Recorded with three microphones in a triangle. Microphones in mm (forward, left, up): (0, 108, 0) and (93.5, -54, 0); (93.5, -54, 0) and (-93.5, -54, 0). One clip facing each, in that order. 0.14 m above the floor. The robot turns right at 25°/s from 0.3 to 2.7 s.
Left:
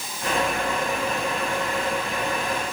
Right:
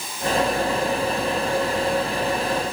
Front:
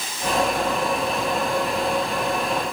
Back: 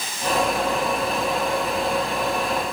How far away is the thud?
I don't hear a thud.